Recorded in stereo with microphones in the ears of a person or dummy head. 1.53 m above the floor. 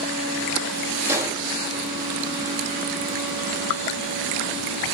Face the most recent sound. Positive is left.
turn(degrees=-15)  # may be behind; listen again after turning